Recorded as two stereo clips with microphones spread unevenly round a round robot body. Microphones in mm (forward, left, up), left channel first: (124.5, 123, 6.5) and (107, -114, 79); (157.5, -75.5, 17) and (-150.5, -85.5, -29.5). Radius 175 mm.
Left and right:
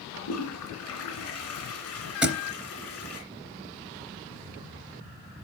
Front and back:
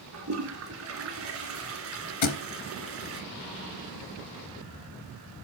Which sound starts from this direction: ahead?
A thud, at 2.2 s.